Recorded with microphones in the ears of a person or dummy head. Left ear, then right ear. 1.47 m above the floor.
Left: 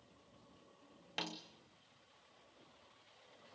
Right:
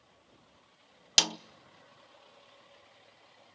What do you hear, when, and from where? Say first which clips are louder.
1.2 s a snare drum: right 18 dB; 75° right (ahead or behind), 0.6 m